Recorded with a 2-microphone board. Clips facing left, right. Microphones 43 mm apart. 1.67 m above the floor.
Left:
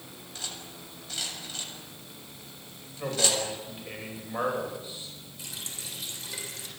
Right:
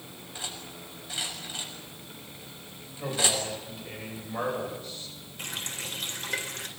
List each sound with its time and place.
0.3 s cutlery clinking: 15° right (ahead or behind), 7 m
3.0 s a man speaking: 15° left (ahead or behind), 9.5 m
5.4 s a running tap: 50° right (ahead or behind), 3.5 m